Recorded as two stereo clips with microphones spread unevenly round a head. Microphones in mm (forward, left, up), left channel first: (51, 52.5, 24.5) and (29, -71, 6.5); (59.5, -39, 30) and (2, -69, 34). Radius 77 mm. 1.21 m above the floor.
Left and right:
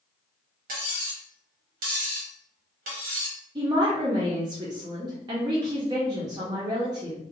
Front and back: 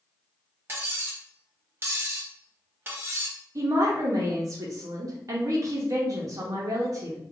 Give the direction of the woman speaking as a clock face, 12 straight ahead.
5 o'clock.